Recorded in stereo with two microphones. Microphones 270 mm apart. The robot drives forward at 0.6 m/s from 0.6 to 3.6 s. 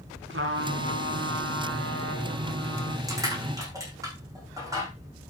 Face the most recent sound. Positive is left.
turn(degrees=-15)  # may be behind; listen again after turning